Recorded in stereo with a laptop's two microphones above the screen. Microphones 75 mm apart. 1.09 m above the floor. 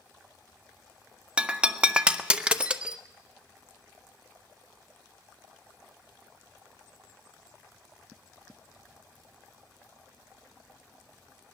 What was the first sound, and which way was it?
Breaking glass, 15° right (ahead or behind).